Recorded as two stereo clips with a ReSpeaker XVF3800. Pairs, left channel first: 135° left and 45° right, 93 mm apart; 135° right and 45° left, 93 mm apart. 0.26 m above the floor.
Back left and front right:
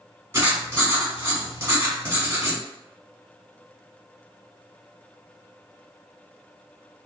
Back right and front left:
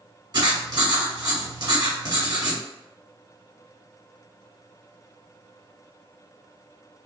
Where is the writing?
10° left, 1.1 m.